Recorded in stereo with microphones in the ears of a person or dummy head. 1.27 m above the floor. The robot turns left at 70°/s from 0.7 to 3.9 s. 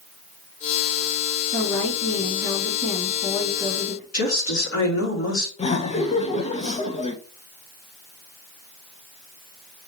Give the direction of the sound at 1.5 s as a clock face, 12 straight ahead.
2 o'clock.